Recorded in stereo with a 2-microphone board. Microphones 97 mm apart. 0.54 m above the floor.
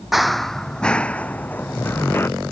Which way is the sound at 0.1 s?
Centre (ahead or behind).